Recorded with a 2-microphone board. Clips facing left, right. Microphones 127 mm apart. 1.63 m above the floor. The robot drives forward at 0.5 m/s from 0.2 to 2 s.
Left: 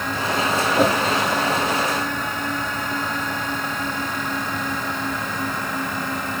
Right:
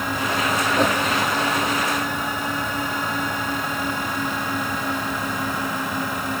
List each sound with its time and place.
0.7 s a whoosh: 5° left (ahead or behind), 1.4 m